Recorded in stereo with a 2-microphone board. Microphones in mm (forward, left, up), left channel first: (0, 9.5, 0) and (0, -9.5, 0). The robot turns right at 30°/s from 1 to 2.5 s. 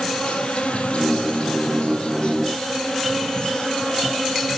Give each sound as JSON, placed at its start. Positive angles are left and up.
{"t": 0.0, "sound": "an insect", "azimuth_deg": 80, "distance_m": 3.0}